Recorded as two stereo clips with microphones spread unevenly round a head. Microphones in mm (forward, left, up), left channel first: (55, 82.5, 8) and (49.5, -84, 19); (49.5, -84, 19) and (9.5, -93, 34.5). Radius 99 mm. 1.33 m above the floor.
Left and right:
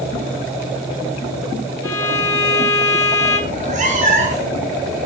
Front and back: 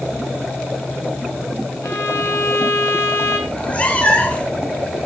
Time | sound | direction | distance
1.8 | a violin | 15° left | 2.5 m
3.5 | a cat meowing | 55° right | 3 m